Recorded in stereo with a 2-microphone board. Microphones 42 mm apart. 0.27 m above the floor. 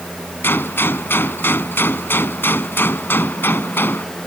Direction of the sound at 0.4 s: 60° left (ahead or behind).